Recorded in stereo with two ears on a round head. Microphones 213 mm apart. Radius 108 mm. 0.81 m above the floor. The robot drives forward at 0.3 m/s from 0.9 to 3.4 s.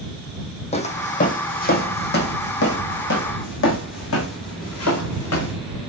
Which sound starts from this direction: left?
Footsteps, at 0.7 s.